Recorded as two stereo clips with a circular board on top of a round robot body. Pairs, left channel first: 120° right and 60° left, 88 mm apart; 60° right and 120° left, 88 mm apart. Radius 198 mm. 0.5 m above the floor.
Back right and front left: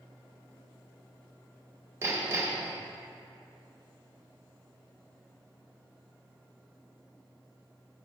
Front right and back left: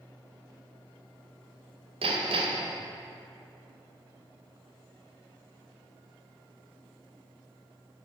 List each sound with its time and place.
2.0 s hammering: 120° left, 0.9 m